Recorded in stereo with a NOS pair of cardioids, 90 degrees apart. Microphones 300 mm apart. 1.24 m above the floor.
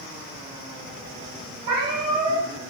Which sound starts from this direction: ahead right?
A cat meowing, at 1.6 s.